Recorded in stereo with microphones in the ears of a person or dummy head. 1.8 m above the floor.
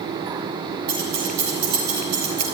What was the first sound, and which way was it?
Keys jangling, 60° right (ahead or behind).